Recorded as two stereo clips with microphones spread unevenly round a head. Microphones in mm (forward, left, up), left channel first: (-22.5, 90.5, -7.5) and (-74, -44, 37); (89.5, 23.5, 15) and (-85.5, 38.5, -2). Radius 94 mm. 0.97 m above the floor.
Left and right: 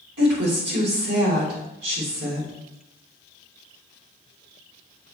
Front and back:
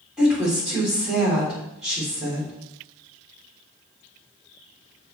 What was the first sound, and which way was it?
A woman speaking, 100° right.